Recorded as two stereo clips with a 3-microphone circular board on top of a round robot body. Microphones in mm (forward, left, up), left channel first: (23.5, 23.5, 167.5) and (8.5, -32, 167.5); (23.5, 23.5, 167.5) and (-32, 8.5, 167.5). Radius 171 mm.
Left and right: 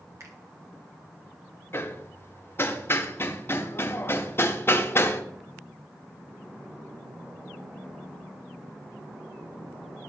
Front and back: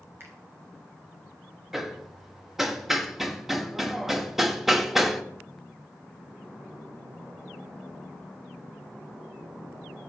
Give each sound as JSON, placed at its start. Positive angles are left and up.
{"t": 0.2, "sound": "a finger snap", "azimuth_deg": -125, "distance_m": 2.5}
{"t": 1.7, "sound": "hammering", "azimuth_deg": 110, "distance_m": 1.1}